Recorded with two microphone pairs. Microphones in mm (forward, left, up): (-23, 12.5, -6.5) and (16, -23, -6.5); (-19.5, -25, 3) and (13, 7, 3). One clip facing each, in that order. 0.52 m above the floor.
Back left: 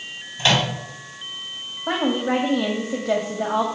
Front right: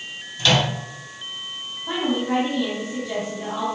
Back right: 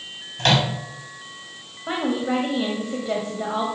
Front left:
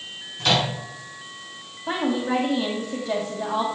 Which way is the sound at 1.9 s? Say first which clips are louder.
Back left 2 dB, even; 145° left.